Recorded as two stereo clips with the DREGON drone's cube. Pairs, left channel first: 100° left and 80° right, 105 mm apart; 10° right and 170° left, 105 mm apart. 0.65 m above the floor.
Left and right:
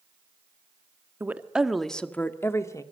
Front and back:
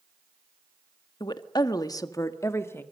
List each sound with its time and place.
1.2 s a woman speaking: 20° right, 1.3 m; by 2.8 s 50° left, 1.7 m